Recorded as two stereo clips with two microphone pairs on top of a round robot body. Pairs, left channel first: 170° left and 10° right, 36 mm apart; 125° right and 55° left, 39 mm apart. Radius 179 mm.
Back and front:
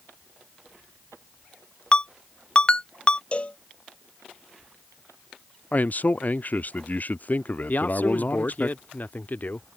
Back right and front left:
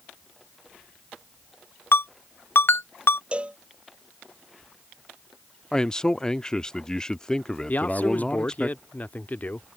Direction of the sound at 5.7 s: 165° left.